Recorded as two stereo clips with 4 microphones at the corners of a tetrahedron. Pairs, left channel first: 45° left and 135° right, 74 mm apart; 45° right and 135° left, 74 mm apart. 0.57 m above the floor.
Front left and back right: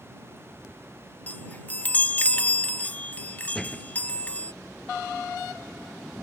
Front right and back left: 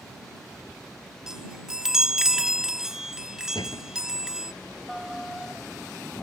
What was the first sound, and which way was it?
A chime, 65° left.